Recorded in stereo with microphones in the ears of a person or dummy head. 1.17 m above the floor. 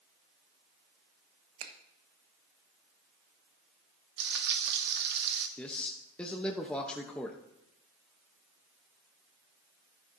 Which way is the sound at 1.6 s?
70° right (ahead or behind).